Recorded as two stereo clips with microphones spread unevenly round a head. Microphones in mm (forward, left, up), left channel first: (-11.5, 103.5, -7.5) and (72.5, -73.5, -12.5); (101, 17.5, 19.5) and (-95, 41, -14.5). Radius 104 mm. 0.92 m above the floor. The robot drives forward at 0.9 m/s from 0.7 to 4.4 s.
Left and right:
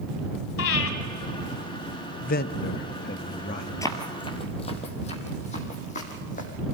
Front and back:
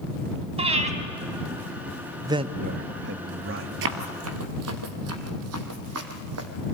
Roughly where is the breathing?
Left.